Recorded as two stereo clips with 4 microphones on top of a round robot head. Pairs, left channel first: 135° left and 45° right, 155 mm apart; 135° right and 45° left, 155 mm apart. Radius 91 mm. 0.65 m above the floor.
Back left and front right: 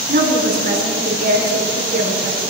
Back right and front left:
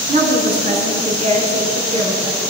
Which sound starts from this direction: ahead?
A woman speaking, at 0.1 s.